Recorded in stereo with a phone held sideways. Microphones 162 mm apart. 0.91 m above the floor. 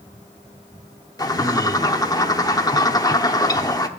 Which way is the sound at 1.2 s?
25° left (ahead or behind).